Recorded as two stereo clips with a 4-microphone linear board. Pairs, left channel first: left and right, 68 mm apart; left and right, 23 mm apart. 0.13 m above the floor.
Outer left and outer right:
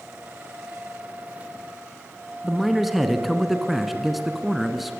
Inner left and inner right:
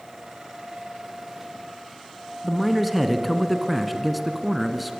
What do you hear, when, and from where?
2.4 s a man speaking: centre (ahead or behind), 1.5 m